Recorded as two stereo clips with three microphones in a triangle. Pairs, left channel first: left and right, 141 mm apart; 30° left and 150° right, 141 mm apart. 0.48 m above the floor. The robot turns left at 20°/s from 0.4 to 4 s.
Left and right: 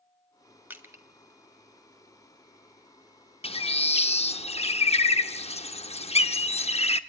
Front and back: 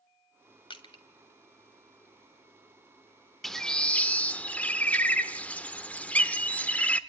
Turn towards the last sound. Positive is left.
turn(degrees=105)